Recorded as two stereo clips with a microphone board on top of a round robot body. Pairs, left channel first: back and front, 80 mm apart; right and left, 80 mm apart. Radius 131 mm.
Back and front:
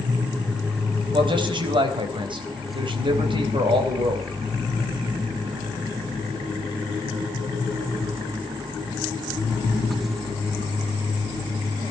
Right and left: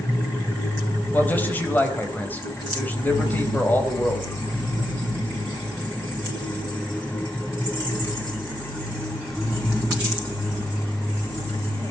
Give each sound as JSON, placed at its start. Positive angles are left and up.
{"t": 1.1, "sound": "a man speaking", "azimuth_deg": -20, "distance_m": 4.0}